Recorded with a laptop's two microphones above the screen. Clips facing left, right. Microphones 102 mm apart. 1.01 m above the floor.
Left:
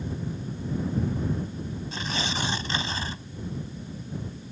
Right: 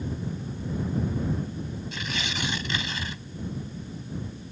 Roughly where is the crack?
I don't hear a crack.